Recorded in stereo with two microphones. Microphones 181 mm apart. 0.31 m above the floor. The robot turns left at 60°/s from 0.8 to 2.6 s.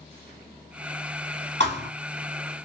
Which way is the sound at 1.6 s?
75° right (ahead or behind).